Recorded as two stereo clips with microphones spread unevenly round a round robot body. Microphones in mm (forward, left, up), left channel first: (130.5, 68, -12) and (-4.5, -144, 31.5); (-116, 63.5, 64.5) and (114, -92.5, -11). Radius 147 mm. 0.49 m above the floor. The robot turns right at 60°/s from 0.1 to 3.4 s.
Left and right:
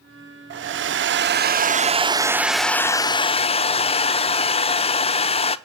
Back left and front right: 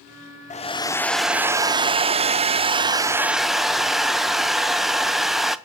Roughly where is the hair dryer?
Behind right.